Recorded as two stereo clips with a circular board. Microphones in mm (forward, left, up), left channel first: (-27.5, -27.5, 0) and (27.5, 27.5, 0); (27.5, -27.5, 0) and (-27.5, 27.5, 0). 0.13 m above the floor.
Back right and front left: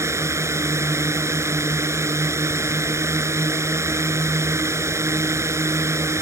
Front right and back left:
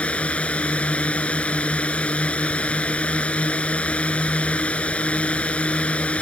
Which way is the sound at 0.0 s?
20° left.